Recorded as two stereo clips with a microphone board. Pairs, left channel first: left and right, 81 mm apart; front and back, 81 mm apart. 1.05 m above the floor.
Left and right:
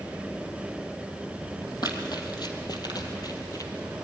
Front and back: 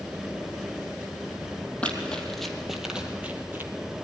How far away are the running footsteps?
About 2 m.